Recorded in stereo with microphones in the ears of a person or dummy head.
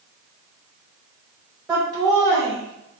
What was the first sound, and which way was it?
Laughter, 5° right (ahead or behind).